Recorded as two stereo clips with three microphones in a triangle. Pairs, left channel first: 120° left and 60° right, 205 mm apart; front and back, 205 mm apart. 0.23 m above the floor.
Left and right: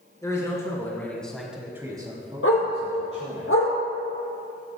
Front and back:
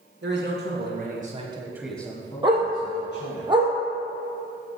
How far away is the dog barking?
About 2.0 m.